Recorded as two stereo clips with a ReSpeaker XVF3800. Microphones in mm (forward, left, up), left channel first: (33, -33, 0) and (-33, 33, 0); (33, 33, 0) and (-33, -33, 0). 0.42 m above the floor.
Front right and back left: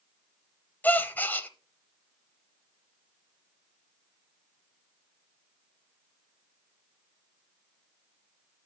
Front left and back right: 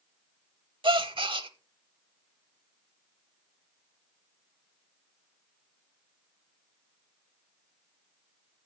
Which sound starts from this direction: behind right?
A gasp, at 0.8 s.